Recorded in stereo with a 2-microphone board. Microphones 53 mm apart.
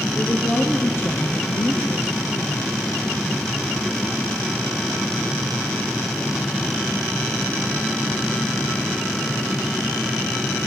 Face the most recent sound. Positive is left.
turn(degrees=60)  # may be behind; listen again after turning